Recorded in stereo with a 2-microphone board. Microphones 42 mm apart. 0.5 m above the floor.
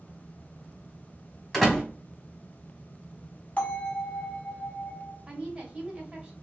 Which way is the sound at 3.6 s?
35° left (ahead or behind).